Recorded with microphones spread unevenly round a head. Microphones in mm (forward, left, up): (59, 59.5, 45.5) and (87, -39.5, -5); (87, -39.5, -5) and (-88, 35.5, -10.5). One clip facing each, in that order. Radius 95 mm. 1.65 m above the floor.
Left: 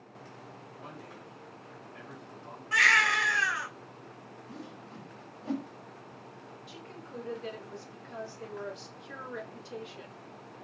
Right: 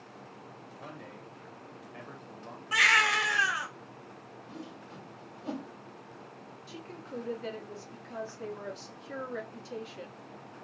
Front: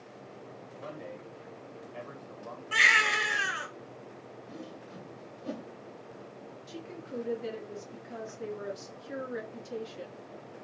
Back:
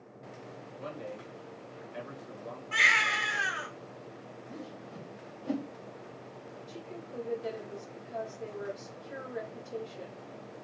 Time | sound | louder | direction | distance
0.8 | a man speaking | right 2 dB, back 2 dB | 135° right | 1.7 m
2.7 | a baby crying | even, front 4 dB | 15° left | 2.5 m
4.5 | a whoosh | right 1 dB, back 1 dB | straight ahead | 2.5 m
6.7 | a woman speaking | right 4 dB, front 4 dB | 30° right | 2 m